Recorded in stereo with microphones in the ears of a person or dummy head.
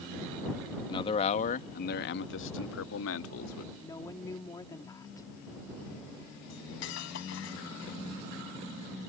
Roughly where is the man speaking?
Left.